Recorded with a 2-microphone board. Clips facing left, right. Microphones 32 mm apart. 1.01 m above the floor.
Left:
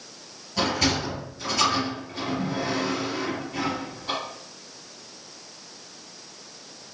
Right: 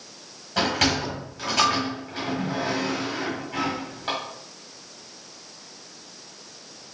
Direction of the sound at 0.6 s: 80° right.